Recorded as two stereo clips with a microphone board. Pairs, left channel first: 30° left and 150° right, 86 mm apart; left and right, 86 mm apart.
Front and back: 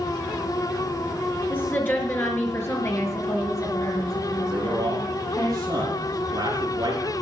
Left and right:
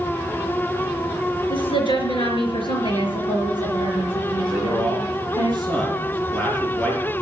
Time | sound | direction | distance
1.5 | a woman speaking | 100° left | 4 m
4.5 | a man speaking | 160° left | 4 m